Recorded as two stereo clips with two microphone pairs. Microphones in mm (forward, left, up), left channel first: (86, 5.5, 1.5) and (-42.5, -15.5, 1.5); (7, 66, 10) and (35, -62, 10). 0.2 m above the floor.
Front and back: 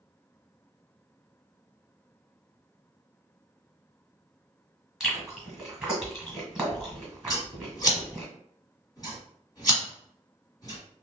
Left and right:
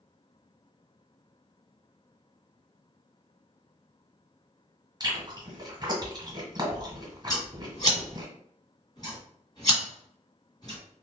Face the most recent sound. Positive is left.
turn(degrees=60)